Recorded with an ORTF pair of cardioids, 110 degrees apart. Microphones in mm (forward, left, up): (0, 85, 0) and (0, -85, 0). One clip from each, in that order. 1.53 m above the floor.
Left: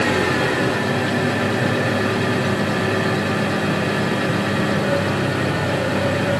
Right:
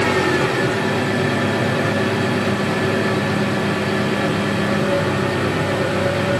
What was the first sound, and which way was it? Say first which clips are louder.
An engine running: right 1 dB; 5° left.